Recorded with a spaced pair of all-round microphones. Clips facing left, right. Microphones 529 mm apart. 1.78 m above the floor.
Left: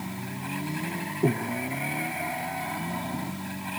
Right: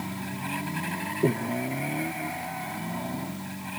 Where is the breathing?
5° left (ahead or behind), 1.4 m.